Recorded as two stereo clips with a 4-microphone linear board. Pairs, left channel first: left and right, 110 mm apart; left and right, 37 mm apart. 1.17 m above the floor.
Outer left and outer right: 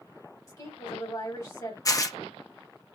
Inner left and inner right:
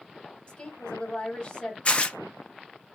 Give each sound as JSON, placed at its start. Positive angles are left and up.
{"t": 0.5, "sound": "a woman speaking", "side_deg": 25, "distance_m": 1.7}
{"t": 1.9, "sound": "tearing paper", "side_deg": 30, "distance_m": 0.5}